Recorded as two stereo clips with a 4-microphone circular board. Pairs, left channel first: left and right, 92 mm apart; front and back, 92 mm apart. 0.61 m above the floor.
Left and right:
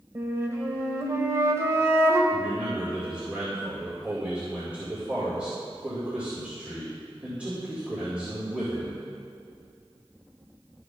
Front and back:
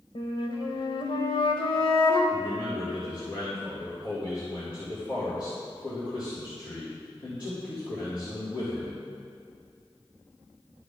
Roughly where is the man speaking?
Ahead.